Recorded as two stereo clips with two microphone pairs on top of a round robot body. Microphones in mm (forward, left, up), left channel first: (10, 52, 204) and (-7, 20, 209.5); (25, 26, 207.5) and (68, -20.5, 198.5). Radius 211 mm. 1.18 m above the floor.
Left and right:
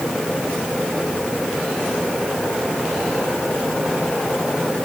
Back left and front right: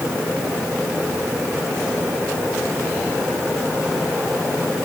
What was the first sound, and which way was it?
Only background noise.